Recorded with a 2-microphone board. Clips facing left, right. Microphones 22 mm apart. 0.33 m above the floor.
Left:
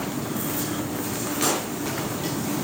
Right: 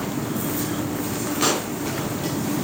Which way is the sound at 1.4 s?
25° right (ahead or behind).